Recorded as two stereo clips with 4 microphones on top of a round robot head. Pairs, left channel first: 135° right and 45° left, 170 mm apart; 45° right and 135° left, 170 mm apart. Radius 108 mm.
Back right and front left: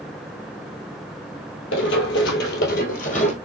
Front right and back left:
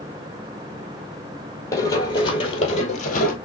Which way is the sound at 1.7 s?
115° right.